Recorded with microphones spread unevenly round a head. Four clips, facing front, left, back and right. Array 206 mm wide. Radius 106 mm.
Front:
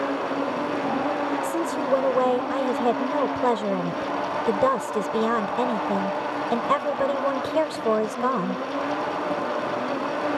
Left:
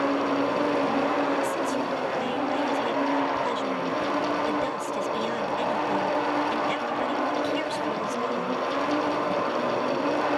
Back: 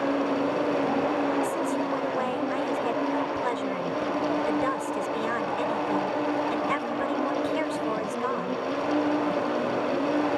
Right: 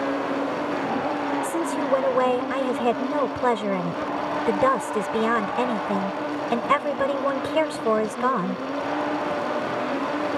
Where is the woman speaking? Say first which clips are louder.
Right 2 dB, front 2 dB; 45° right.